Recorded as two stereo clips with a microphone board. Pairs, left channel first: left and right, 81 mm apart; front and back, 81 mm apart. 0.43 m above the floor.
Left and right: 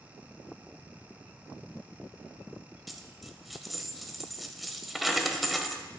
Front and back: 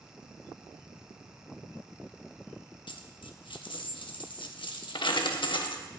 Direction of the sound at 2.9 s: Straight ahead.